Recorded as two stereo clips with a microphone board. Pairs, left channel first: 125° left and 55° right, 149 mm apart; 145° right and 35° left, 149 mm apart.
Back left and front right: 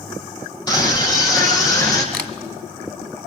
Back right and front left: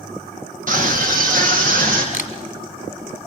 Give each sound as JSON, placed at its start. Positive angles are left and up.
{"t": 0.7, "sound": "a scream", "azimuth_deg": 60, "distance_m": 5.5}
{"t": 2.1, "sound": "a camera shutter", "azimuth_deg": -160, "distance_m": 1.6}